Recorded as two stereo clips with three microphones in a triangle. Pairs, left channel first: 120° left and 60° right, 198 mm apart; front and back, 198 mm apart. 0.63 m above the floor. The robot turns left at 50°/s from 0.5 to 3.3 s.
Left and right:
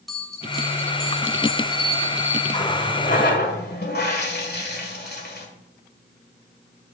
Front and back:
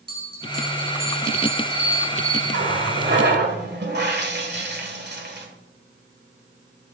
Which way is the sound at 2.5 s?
170° right.